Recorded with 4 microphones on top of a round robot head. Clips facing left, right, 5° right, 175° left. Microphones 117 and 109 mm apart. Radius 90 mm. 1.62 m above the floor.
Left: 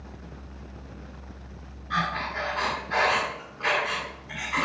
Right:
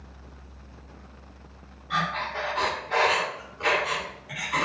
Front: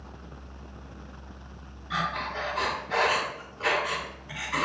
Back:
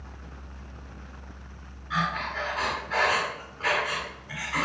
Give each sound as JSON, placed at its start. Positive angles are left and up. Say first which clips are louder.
{"t": 1.9, "sound": "breathing", "louder": "even, back 1 dB", "azimuth_deg": -35, "distance_m": 1.9}